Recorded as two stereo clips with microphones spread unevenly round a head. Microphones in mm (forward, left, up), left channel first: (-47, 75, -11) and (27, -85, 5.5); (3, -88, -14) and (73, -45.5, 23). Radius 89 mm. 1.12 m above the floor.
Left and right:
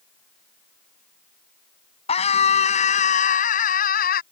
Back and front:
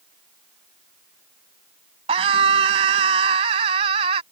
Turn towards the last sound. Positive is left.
turn(degrees=70)